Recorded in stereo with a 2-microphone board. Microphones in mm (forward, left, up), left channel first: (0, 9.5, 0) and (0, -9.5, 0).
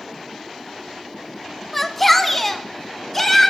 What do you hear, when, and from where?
1.7 s a shout: 5° left (ahead or behind), 1.0 m; by 3.5 s 10° left (ahead or behind), 2 m